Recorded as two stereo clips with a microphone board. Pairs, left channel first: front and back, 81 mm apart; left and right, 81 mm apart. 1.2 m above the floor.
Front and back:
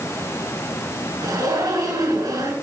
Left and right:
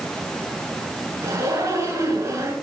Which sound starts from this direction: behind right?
A zipper, at 1.2 s.